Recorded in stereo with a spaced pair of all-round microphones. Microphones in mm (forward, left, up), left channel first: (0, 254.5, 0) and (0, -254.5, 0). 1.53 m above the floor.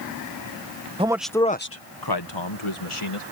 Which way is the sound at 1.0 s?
10° right (ahead or behind).